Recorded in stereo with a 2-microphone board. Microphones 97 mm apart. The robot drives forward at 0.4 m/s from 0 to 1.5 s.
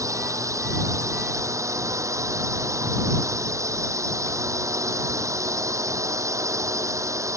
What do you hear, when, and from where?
0.0 s a drone: 30° right (ahead or behind)